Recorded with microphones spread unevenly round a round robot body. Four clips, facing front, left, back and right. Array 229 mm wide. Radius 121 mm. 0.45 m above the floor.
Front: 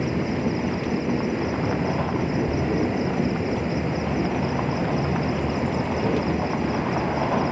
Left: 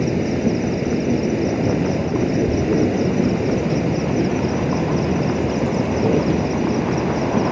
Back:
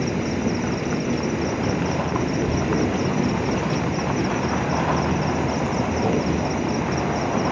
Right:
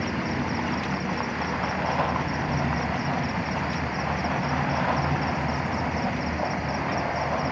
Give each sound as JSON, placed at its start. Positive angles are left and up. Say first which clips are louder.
{"t": 0.0, "sound": "an insect", "louder": "left 9 dB, back 1 dB", "azimuth_deg": 95}